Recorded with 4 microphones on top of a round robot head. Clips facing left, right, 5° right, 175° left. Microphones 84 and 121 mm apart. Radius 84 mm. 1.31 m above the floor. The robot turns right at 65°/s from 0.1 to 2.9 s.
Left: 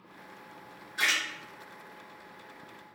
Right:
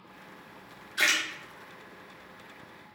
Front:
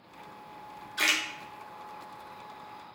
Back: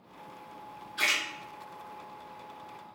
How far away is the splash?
About 0.8 m.